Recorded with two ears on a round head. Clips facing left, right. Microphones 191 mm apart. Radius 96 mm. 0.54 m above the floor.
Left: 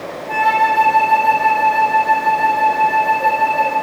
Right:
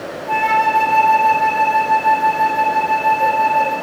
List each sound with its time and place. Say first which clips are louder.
0.3 s a flute: even; 20° right (ahead or behind), 2.5 m